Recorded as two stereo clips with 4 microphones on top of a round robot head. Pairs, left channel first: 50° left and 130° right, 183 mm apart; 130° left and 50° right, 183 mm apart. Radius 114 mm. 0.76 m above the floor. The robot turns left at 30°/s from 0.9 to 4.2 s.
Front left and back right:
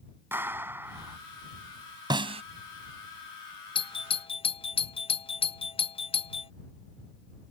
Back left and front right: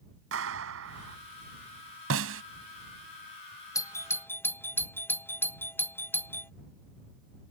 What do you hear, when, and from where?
0.3 s a clap: 50° right; by 1.2 s 60° right
2.1 s a snare drum: 60° right; by 2.4 s 70° right
3.8 s a doorbell: 75° left; by 6.5 s 60° left